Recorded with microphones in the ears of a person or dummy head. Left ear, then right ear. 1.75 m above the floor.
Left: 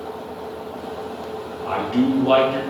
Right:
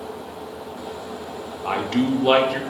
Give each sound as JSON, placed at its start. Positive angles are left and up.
{"t": 1.6, "sound": "a man speaking", "side_deg": -55, "distance_m": 0.8}